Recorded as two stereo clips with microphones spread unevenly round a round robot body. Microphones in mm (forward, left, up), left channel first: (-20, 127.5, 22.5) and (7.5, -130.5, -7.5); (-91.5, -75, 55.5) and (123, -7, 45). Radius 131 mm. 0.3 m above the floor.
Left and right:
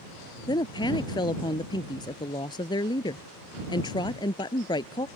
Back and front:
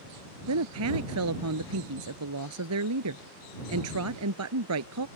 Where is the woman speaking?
20° left.